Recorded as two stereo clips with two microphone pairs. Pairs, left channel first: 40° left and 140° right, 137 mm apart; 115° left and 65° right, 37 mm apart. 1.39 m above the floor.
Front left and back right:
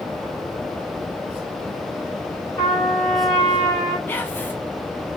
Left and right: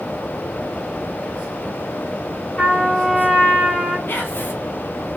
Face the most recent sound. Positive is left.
turn(degrees=115)